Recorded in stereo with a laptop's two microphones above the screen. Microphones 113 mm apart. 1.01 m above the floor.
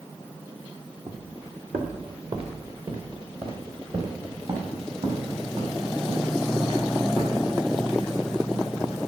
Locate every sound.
1.1 s footsteps: 65° right (ahead or behind), 3 m; by 9.0 s 55° right (ahead or behind), 11.5 m